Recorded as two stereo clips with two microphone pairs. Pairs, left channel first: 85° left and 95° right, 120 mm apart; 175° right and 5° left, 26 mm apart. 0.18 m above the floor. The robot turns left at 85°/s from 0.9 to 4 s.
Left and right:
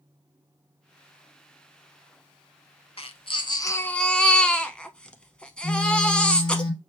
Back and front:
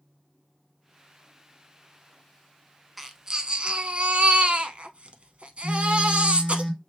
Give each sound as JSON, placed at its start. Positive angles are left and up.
{"t": 3.0, "sound": "a baby crying", "azimuth_deg": 95, "distance_m": 0.6}
{"t": 5.6, "sound": "a phone buzzing", "azimuth_deg": 65, "distance_m": 1.7}